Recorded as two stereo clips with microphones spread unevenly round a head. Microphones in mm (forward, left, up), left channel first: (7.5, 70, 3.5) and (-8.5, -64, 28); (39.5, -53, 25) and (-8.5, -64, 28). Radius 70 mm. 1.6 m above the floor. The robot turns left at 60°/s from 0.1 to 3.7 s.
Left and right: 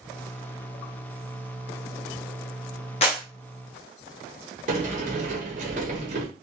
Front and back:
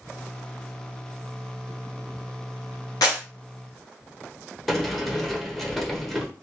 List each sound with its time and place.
3.0 s a clap: 30° left, 0.9 m; by 3.2 s 20° left, 0.9 m
4.7 s a sliding door: 75° right, 0.9 m